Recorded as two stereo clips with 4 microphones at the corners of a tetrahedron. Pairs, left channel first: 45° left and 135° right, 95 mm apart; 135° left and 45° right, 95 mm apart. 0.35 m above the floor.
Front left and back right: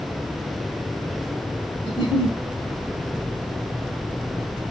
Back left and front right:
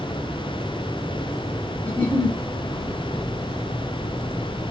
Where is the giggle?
60° left, 0.9 m.